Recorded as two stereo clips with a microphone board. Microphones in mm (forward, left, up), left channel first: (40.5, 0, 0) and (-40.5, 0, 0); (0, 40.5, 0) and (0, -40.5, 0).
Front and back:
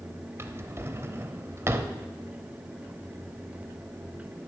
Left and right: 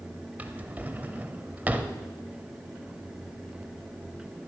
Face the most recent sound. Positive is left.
turn(degrees=-145)